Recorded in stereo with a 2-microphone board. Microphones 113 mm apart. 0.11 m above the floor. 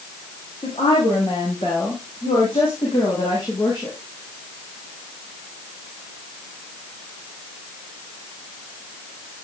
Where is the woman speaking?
55° left (ahead or behind), 7 m; by 4.0 s 35° left (ahead or behind), 7 m.